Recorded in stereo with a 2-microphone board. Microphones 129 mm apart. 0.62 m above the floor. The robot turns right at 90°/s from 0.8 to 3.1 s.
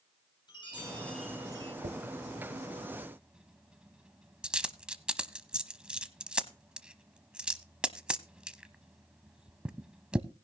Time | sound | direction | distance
0.5 | a chime | 145° left | 7 m
1.8 | a dropped coin | 50° right (ahead or behind) | 0.7 m